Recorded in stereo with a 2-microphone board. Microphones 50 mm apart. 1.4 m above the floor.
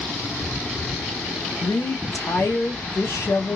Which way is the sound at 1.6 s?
75° left (ahead or behind).